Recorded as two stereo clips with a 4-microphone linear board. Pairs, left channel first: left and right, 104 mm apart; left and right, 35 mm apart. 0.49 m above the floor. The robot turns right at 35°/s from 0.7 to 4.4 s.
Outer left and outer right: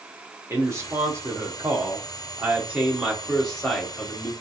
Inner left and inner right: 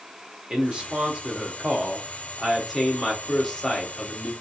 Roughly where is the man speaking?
Right.